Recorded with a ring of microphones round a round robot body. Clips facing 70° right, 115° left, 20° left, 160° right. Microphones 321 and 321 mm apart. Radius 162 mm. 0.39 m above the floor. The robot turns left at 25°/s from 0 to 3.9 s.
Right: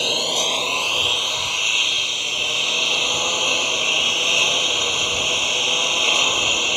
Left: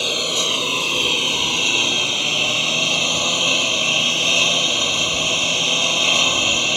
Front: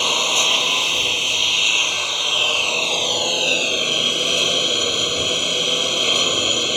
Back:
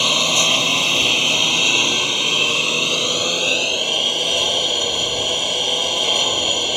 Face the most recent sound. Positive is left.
turn(degrees=105)